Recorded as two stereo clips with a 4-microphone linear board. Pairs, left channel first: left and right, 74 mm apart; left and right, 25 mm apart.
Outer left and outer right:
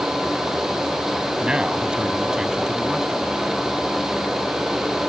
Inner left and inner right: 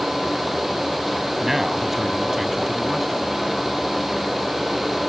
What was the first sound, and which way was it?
A man speaking, 10° right (ahead or behind).